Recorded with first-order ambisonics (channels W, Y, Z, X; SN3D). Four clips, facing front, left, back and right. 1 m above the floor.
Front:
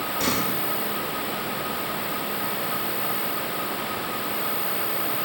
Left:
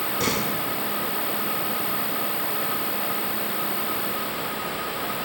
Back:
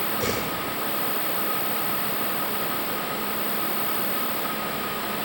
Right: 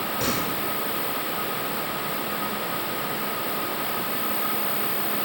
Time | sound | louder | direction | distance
0.2 | a door slam | left 3 dB, front 3 dB | 60° left | 5.5 m